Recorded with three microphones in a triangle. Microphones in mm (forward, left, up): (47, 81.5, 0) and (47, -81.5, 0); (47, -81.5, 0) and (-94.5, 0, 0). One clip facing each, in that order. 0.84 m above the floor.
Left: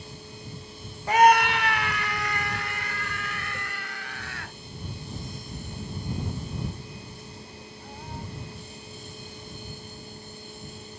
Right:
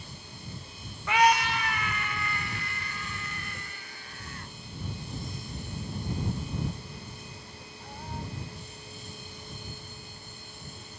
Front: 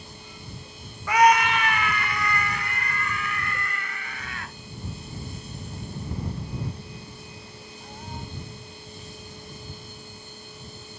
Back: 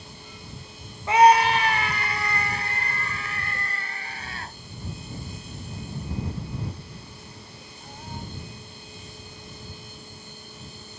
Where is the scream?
105° left; by 4.5 s 95° left.